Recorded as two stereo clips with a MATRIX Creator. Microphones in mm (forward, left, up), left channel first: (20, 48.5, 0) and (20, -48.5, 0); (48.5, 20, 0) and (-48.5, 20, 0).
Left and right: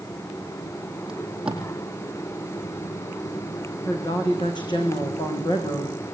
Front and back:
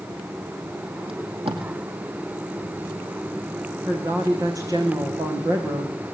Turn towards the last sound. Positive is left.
turn(degrees=125)